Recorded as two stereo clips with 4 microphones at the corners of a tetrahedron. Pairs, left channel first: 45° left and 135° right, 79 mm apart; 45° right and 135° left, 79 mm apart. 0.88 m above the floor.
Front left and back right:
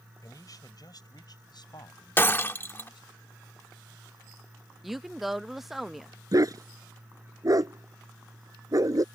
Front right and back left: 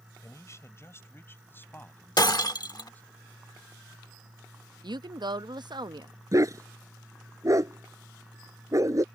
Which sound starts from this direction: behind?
A dog barking, at 6.3 s.